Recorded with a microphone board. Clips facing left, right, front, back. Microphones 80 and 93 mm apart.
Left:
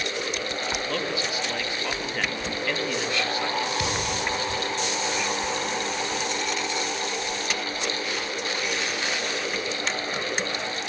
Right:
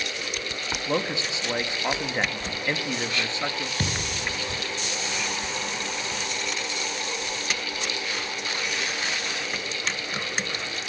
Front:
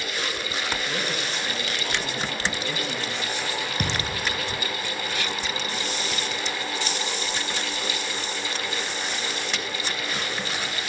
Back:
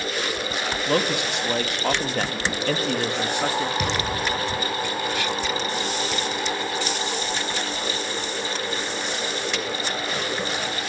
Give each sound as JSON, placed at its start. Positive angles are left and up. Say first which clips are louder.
{"t": 0.9, "sound": "a man speaking", "louder": "right 1 dB, back 7 dB", "azimuth_deg": -160, "distance_m": 1.7}
{"t": 3.8, "sound": "a thud", "louder": "left 3 dB, back 4 dB", "azimuth_deg": -40, "distance_m": 4.5}